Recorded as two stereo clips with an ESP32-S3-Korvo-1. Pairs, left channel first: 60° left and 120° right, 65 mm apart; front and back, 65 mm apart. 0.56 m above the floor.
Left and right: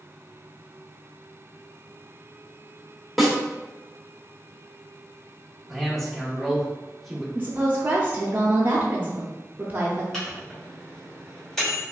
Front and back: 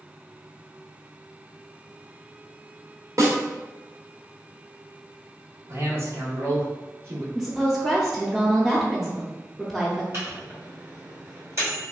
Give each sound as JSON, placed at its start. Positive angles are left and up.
{"t": 3.2, "sound": "a snare drum", "azimuth_deg": 150, "distance_m": 0.9}
{"t": 5.7, "sound": "a man speaking", "azimuth_deg": 145, "distance_m": 1.1}
{"t": 7.3, "sound": "a woman speaking", "azimuth_deg": -90, "distance_m": 0.7}
{"t": 10.1, "sound": "a microwave", "azimuth_deg": 140, "distance_m": 1.9}